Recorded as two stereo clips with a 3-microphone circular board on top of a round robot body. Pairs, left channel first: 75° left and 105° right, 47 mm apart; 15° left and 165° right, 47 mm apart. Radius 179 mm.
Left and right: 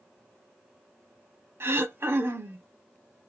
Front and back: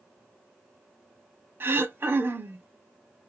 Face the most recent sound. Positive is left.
turn(degrees=-130)